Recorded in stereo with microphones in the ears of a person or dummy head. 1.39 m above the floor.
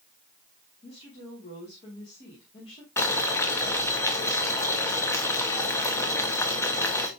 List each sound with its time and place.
0.8 s a woman speaking: 30° left (ahead or behind), 2.5 m
3.0 s boiling: 15° left (ahead or behind), 1.3 m